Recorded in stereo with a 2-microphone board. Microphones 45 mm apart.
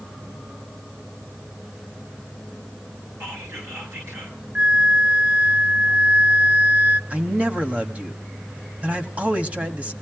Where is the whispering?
55° right (ahead or behind), 5 m.